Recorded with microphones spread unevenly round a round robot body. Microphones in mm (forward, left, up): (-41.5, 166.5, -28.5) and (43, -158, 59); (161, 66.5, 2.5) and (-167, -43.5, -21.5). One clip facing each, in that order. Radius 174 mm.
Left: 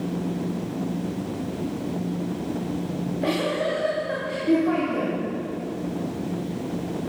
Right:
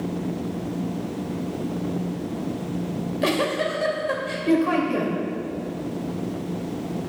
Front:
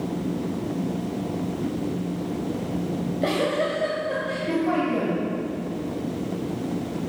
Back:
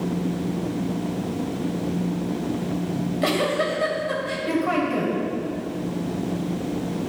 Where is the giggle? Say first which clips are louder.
Right 3 dB, back 1 dB; 105° right, 2.5 m.